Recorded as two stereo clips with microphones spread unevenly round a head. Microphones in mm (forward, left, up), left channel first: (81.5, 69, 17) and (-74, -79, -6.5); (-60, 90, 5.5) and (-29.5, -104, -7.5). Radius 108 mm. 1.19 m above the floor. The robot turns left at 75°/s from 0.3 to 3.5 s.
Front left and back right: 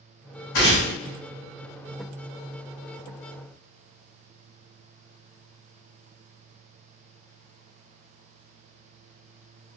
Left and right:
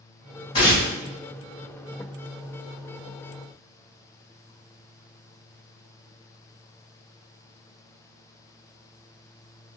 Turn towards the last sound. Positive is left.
turn(degrees=175)